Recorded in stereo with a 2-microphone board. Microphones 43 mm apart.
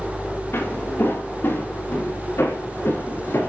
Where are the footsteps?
65° left (ahead or behind), 5.5 m; by 3.5 s 70° left (ahead or behind), 7.5 m.